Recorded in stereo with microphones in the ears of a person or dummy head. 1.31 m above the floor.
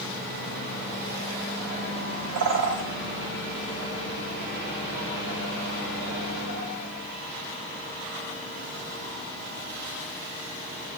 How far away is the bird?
About 2.5 m.